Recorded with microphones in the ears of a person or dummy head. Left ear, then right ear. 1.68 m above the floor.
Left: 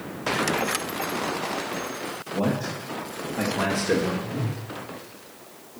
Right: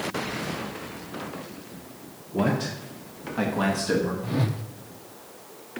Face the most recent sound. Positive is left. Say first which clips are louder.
# right 2 dB
turn(degrees=-65)  # may be behind; listen again after turning